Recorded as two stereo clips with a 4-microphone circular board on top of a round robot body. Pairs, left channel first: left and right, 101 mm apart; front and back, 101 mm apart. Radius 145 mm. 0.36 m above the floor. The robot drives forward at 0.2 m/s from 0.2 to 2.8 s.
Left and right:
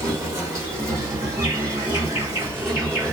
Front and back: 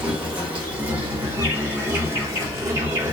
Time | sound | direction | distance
0.0 | an insect | 110° right | 1.7 m